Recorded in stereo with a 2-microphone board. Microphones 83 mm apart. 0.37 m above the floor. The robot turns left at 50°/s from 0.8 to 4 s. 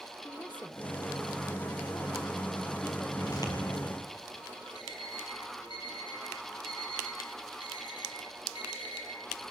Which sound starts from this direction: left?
An alarm clock, at 4.8 s.